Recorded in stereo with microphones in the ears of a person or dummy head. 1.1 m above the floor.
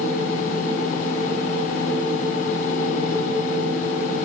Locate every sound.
0.0 s a machine running: 50° left (ahead or behind), 2.5 m